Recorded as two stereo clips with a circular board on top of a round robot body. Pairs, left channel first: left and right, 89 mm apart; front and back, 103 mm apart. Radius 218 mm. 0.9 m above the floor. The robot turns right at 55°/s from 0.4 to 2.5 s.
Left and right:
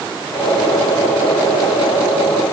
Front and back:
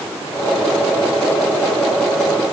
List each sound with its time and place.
Only background noise.